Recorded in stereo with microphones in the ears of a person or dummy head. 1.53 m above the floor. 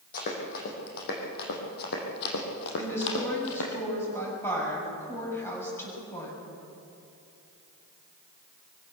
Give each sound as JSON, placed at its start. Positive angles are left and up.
{"t": 0.1, "sound": "running footsteps", "side_deg": 50, "distance_m": 4.5}
{"t": 2.8, "sound": "a woman speaking", "side_deg": 10, "distance_m": 8.0}